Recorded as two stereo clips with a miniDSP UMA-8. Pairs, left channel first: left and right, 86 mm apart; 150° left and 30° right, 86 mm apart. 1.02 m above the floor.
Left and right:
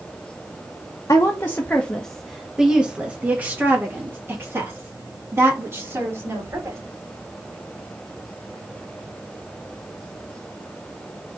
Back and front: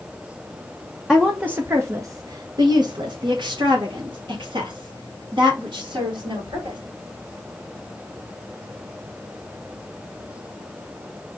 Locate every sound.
1.1 s a woman speaking: 55° left, 0.8 m; by 6.8 s 40° right, 3 m